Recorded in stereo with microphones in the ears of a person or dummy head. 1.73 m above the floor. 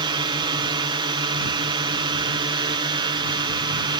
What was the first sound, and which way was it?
A drone, 20° right (ahead or behind).